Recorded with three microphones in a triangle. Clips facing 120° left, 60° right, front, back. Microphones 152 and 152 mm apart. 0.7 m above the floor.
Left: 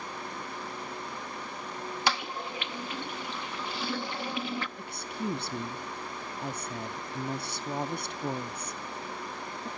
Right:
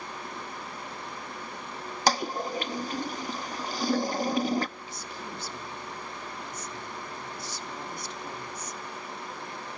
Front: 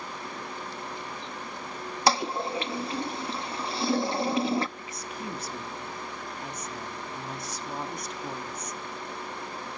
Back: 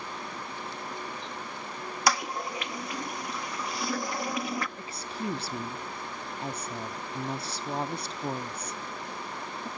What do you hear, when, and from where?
2.1 s a toilet flushing: 45° right, 0.6 m
4.8 s a woman speaking: 125° left, 0.9 m